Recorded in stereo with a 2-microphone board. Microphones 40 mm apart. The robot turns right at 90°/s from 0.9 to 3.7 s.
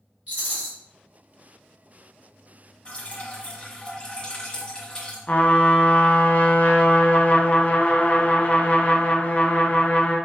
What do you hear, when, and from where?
0.3 s a rattle: 45° right (ahead or behind), 1.9 m
2.9 s dripping: 65° left, 1.1 m; by 5.2 s 140° left, 1.1 m
5.3 s a trumpet: 40° left (ahead or behind), 0.6 m